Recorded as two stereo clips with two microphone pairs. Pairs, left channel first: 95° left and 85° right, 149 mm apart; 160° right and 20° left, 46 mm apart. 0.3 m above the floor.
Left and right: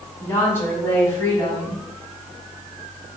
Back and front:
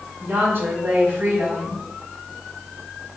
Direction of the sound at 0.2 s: 30° left.